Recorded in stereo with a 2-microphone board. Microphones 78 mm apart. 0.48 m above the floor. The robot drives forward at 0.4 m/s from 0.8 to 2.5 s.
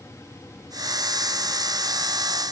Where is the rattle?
I don't hear a rattle.